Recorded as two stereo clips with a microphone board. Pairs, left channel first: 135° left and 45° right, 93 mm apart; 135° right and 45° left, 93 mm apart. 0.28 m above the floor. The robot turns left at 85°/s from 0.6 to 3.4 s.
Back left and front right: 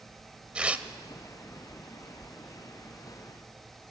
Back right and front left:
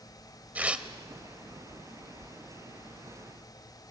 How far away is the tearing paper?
About 0.8 m.